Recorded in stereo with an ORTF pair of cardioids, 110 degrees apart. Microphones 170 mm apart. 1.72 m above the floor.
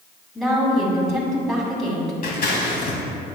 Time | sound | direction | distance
0.3 | a woman speaking | straight ahead | 2 m
2.2 | scissors | 60° left | 2 m